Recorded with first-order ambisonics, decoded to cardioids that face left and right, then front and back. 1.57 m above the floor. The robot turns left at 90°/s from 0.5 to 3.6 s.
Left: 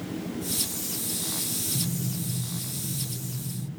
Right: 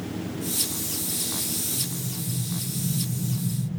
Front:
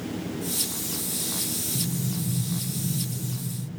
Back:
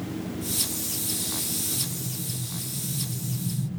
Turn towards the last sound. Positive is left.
turn(degrees=-120)